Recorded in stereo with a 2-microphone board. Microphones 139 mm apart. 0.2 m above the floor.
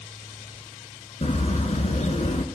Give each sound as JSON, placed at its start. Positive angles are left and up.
{"t": 1.2, "sound": "a bird", "side_deg": 55, "distance_m": 0.8}